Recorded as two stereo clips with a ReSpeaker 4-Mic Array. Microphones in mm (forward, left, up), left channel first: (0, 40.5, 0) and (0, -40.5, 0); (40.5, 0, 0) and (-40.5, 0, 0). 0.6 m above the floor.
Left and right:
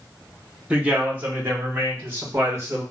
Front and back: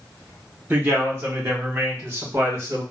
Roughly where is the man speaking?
Behind right.